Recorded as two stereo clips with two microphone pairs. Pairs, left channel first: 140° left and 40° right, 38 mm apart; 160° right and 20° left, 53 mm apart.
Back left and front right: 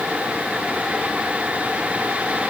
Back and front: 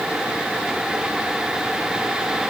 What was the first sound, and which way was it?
Only background noise.